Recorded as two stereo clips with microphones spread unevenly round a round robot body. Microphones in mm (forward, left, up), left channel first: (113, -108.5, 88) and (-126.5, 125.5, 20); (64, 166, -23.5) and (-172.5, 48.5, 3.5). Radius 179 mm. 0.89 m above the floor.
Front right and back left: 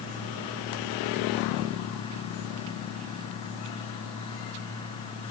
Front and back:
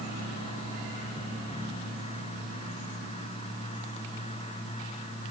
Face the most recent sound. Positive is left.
No sound to turn to.